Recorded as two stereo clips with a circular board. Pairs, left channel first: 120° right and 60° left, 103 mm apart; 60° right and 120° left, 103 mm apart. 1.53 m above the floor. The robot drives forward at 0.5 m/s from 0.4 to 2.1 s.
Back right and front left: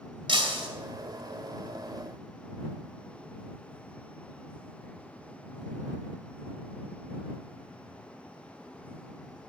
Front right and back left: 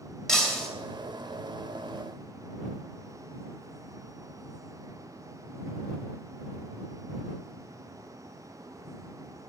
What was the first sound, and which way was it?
Breaking glass, 25° left.